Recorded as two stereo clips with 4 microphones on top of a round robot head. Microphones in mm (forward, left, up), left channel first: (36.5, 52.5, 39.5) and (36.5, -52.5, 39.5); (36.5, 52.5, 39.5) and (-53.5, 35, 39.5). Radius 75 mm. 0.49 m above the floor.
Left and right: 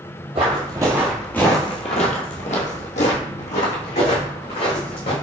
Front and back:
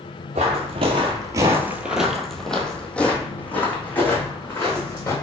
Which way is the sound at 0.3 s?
140° right.